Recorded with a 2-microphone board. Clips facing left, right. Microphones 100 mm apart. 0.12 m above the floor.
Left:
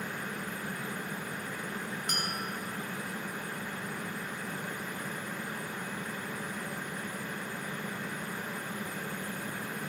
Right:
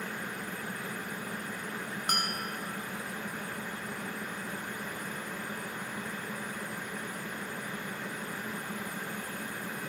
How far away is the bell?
About 1.0 m.